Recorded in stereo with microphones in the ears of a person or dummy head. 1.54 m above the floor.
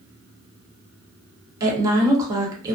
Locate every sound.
1.6 s a woman speaking: 25° right (ahead or behind), 1.1 m